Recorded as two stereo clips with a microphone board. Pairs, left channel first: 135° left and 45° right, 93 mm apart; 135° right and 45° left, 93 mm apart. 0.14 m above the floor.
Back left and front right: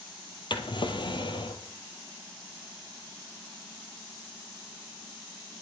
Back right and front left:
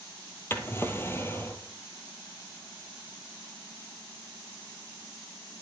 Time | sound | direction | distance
0.5 | a drawer | 160° left | 1.3 m